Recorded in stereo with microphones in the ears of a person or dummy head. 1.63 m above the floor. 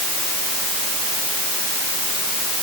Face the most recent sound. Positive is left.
No sound to turn to.